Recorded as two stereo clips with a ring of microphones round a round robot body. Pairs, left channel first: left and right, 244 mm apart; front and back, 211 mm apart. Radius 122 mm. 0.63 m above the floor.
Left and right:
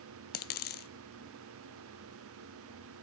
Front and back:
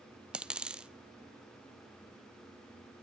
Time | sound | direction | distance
0.3 | a dropped coin | 95° left | 0.7 m